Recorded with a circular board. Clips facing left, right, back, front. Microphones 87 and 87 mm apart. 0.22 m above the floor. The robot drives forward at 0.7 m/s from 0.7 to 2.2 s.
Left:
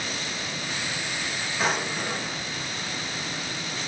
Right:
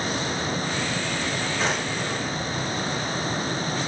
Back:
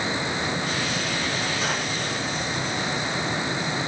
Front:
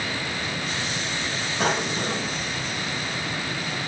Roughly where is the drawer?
Ahead.